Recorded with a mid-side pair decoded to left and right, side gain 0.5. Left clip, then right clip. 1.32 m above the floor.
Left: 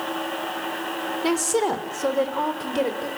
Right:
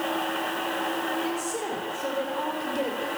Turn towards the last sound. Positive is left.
turn(degrees=40)